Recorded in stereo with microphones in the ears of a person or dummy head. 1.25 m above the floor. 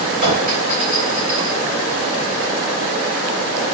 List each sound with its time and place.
0.2 s a clink: 40° right (ahead or behind), 3 m